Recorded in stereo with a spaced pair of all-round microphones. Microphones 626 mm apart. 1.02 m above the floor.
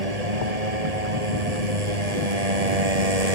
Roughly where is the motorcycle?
Right.